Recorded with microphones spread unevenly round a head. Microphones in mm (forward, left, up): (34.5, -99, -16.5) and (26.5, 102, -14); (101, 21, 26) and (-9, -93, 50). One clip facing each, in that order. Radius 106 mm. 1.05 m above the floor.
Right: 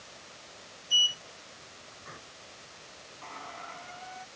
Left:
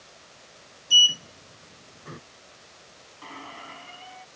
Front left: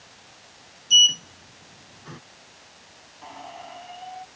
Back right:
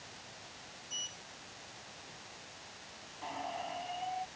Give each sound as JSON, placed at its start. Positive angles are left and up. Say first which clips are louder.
{"t": 0.9, "sound": "a sliding door", "louder": "left 8 dB, front left 12 dB", "azimuth_deg": 55}
{"t": 3.2, "sound": "a squeak", "louder": "left 3 dB, even", "azimuth_deg": 140}